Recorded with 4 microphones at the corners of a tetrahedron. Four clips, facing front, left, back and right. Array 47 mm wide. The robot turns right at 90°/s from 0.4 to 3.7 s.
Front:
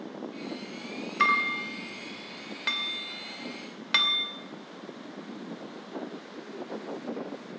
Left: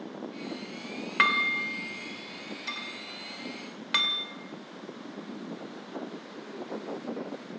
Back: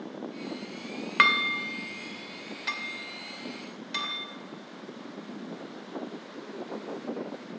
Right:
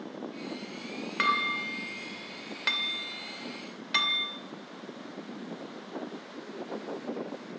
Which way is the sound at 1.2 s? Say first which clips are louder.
Left 3 dB, back 2 dB; 165° left.